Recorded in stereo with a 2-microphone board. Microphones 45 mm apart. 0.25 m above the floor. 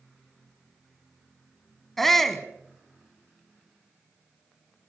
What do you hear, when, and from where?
2.0 s a shout: 5° left (ahead or behind), 1.9 m